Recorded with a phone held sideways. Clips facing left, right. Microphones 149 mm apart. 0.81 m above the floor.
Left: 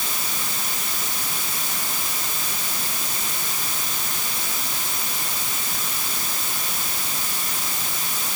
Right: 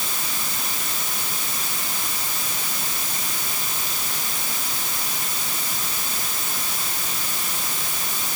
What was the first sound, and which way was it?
Only background noise.